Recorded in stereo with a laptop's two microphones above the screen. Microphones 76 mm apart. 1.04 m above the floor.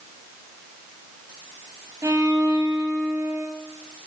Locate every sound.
2.0 s a violin: 45° right (ahead or behind), 2 m